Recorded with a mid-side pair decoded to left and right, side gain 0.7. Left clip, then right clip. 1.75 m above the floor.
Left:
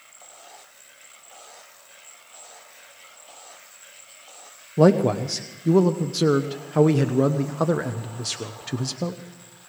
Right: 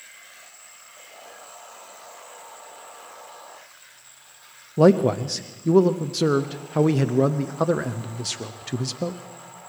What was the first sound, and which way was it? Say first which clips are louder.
A man speaking: right 1 dB; straight ahead.